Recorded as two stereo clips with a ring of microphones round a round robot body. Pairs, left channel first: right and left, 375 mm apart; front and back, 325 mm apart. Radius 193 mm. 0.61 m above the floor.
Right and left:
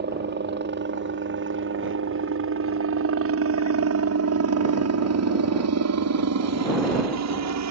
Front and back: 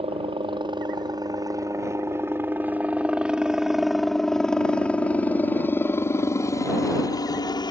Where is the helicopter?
125° left; by 7.7 s 70° left.